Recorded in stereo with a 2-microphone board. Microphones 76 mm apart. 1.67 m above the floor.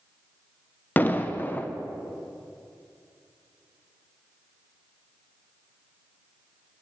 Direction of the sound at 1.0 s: 25° left (ahead or behind).